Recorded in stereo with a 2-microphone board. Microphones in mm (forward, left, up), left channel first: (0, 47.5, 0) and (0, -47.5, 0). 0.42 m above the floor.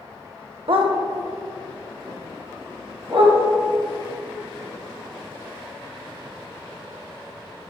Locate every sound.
0.7 s a dog barking: 65° right (ahead or behind), 0.7 m; by 3.4 s 70° right (ahead or behind), 3.5 m